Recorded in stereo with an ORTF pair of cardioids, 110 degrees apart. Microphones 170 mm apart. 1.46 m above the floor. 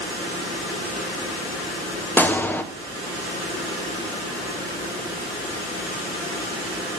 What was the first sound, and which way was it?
A gunshot, 10° left.